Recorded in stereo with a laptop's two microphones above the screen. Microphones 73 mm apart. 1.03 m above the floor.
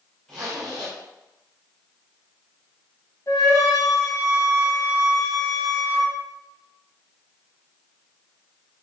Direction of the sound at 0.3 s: 5° left (ahead or behind).